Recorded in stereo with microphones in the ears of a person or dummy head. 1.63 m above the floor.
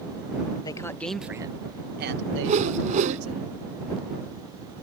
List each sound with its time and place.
0.6 s a man speaking: 25° left (ahead or behind); by 3.4 s 85° right
2.4 s a whoosh: 35° right (ahead or behind)